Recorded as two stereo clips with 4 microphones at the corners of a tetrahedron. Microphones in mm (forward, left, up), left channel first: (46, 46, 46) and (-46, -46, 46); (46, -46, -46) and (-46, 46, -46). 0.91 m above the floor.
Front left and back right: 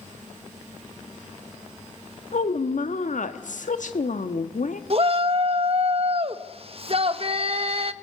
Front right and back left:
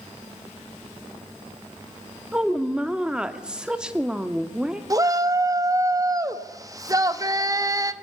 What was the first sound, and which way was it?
A woman speaking, 50° left.